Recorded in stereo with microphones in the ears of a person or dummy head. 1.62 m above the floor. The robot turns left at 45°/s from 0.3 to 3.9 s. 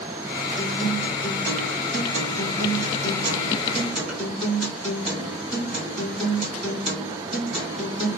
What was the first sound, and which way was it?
A guitar, 10° left.